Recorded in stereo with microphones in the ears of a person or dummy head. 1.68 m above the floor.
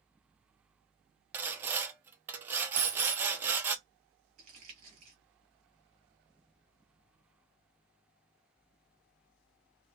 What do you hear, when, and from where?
1.3 s sawing: 15° right (ahead or behind), 0.6 m
2.8 s a dropped coin: 50° right (ahead or behind), 1.6 m
4.4 s crumpling: 40° right (ahead or behind), 1.2 m